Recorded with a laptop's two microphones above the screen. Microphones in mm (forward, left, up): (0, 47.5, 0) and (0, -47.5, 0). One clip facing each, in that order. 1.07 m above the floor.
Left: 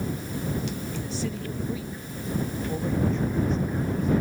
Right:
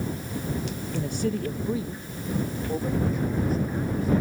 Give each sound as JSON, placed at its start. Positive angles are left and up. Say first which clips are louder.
{"t": 0.9, "sound": "a woman speaking", "louder": "right 4 dB", "side_deg": -60}